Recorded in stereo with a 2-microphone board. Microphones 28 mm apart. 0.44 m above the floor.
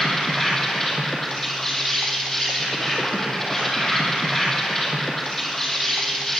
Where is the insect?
15° left (ahead or behind), 2 m.